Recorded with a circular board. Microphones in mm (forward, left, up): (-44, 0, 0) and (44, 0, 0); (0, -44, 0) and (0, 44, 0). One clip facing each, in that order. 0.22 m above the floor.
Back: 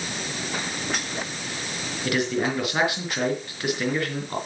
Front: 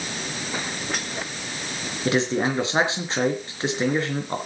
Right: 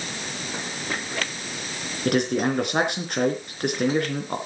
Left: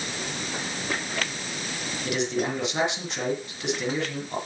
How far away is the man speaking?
About 3.5 m.